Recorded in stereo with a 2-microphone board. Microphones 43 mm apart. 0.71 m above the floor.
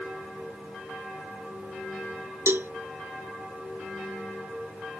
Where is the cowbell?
70° right (ahead or behind).